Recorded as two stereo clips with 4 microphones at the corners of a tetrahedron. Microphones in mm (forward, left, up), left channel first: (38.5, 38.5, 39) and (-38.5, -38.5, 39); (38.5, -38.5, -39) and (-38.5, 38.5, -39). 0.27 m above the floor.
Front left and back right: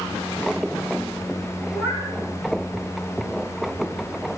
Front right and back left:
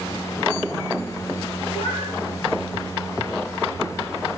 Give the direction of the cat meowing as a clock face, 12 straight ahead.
1 o'clock.